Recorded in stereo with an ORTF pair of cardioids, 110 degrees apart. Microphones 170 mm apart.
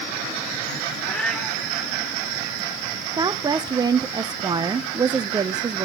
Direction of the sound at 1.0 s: 5° left.